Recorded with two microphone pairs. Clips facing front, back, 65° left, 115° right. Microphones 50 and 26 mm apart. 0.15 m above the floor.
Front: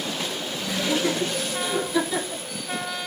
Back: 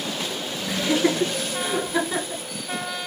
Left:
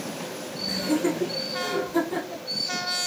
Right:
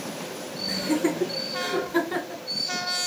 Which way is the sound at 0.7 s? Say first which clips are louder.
Back 3 dB, even; 155° left.